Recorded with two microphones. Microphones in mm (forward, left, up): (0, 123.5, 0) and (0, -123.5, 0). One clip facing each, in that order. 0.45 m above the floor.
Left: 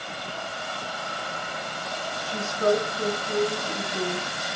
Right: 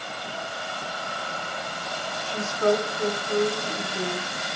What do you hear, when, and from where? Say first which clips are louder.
2.2 s a woman speaking: right 1 dB; 45° left (ahead or behind), 3.5 m